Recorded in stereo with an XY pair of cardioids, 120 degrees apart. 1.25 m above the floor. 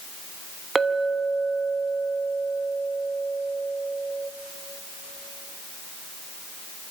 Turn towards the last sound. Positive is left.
turn(degrees=-25)